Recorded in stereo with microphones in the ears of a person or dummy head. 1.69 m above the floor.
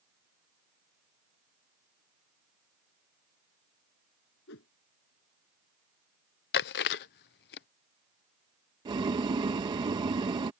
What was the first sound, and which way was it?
A whoosh, 60° left (ahead or behind).